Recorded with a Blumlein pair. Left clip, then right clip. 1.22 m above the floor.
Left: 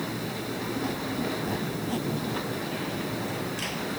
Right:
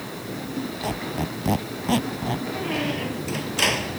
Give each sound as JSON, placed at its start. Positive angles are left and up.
{"t": 0.8, "sound": "a squeak", "azimuth_deg": -30}
{"t": 2.5, "sound": "a squeak", "azimuth_deg": -55}